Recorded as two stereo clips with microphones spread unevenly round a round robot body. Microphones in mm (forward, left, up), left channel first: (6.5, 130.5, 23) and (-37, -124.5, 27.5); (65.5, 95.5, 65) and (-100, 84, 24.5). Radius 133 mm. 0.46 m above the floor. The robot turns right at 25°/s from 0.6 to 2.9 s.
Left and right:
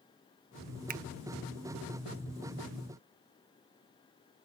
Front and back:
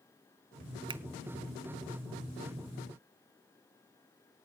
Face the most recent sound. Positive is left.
turn(degrees=-95)